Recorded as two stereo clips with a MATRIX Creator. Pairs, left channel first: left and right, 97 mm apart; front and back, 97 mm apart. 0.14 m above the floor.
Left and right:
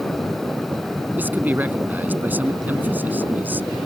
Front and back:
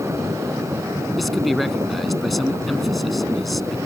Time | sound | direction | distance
1.2 | a man speaking | 90° right | ?